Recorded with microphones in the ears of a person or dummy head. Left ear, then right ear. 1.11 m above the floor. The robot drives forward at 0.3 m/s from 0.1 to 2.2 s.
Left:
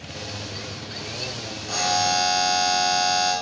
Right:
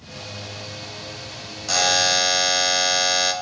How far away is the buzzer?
About 0.8 m.